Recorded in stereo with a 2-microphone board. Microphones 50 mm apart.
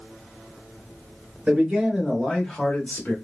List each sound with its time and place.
1.5 s a man speaking: 25° right (ahead or behind), 1.0 m; by 3.1 s 30° left (ahead or behind), 1.0 m